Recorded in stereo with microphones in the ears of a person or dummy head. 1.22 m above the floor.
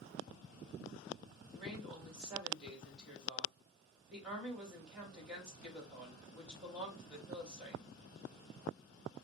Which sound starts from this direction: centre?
A woman speaking, at 1.5 s.